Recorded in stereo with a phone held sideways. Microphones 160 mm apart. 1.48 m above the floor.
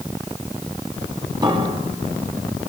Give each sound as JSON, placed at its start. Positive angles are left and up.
{"t": 1.4, "sound": "a piano", "side_deg": -30, "distance_m": 7.5}